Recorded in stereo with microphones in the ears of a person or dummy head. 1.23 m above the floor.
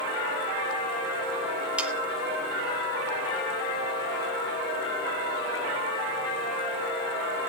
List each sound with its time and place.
1.8 s sawing: centre (ahead or behind), 0.7 m